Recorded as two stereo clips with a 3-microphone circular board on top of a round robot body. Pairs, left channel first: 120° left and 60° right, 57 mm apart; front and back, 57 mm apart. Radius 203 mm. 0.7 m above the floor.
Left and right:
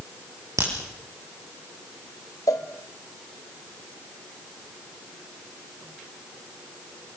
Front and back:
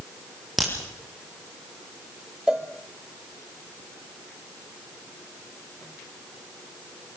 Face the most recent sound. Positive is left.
turn(degrees=100)